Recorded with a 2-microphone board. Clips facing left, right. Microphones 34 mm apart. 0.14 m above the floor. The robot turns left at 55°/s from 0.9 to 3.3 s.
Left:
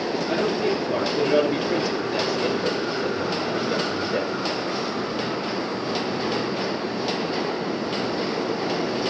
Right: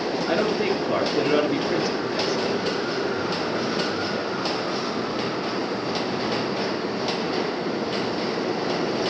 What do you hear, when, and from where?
0.3 s a man speaking: 35° right (ahead or behind), 2 m; by 4.3 s 45° left (ahead or behind), 2 m